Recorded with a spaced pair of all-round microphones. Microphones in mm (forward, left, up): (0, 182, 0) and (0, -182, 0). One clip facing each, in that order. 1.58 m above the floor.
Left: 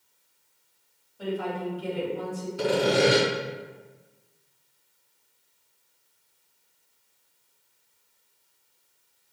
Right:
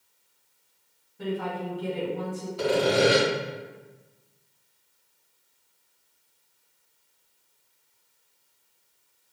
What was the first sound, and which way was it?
A woman speaking, 30° right (ahead or behind).